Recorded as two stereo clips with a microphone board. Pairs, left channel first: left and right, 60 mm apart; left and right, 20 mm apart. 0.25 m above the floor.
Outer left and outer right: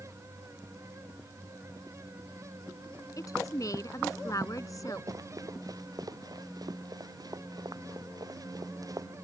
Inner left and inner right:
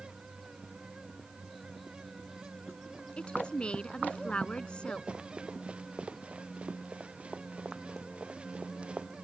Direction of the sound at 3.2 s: 60° left (ahead or behind).